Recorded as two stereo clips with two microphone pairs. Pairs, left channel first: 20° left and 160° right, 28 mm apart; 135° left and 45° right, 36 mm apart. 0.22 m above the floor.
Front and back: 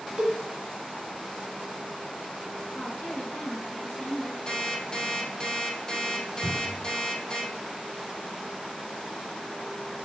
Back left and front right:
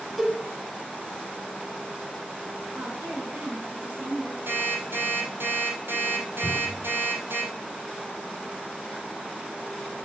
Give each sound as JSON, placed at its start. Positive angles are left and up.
{"t": 0.2, "sound": "a cowbell", "azimuth_deg": -130, "distance_m": 1.5}
{"t": 2.7, "sound": "a woman speaking", "azimuth_deg": -10, "distance_m": 3.5}
{"t": 4.5, "sound": "an alarm clock", "azimuth_deg": -50, "distance_m": 3.5}
{"t": 6.4, "sound": "a cupboard door", "azimuth_deg": 170, "distance_m": 1.8}